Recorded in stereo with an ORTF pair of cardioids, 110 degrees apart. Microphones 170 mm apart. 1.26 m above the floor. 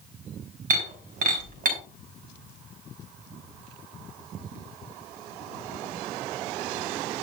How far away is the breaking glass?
About 4.5 m.